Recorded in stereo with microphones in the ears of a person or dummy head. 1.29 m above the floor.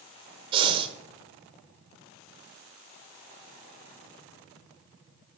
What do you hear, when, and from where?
0.5 s breathing: 30° right (ahead or behind), 0.7 m